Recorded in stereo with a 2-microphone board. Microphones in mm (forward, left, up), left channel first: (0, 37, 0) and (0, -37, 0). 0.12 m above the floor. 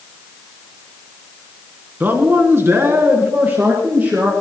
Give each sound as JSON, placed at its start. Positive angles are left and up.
{"t": 2.0, "sound": "a man speaking", "side_deg": -25, "distance_m": 1.5}